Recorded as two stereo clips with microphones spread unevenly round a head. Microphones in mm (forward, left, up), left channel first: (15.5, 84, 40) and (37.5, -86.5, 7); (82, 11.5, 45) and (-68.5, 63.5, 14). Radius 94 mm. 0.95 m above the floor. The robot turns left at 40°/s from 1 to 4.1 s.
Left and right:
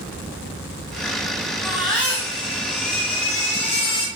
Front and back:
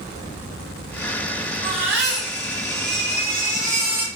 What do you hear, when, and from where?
1.6 s a baby crying: 165° right, 5 m; by 4.1 s 95° left, 5 m